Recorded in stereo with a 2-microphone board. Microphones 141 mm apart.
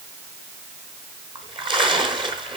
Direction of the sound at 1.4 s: 35° right (ahead or behind).